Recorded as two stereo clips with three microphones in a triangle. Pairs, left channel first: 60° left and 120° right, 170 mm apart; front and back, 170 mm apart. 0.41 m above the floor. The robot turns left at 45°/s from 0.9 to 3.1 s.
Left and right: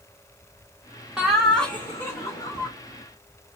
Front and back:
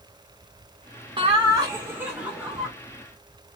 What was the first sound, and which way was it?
Laughter, 155° left.